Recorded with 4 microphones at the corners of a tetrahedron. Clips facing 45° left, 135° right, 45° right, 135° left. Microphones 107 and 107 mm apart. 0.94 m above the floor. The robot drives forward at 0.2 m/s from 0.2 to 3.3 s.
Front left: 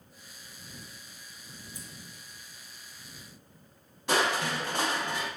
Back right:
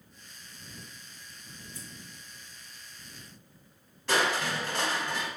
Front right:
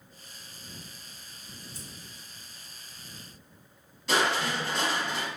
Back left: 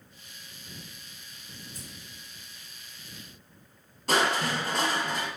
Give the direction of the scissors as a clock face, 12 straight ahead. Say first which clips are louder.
Back right 1 dB, back left 1 dB; 8 o'clock.